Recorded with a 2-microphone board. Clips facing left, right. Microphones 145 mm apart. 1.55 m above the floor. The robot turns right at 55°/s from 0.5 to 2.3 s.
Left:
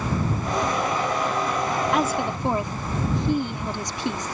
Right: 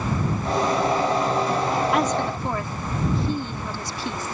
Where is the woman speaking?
Centre (ahead or behind); by 4.3 s 20° left (ahead or behind).